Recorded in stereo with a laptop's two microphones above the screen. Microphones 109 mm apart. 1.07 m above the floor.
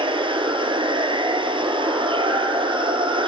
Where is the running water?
50° right (ahead or behind), 2.5 m.